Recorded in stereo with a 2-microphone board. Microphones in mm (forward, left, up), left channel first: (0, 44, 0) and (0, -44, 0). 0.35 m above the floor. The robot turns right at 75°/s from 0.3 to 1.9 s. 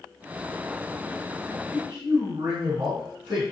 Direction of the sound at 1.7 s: 70° right (ahead or behind).